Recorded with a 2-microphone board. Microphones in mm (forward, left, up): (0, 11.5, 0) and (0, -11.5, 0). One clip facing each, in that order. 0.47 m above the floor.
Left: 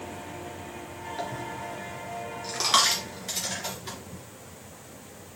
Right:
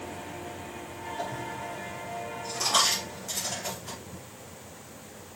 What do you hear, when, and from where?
1.2 s a dropped coin: 65° left (ahead or behind), 3 m